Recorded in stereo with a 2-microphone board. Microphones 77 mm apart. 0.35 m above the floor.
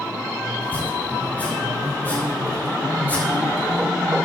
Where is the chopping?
25° left (ahead or behind), 5.5 m.